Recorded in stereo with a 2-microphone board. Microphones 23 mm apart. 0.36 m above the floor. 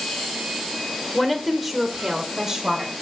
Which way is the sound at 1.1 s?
10° left (ahead or behind).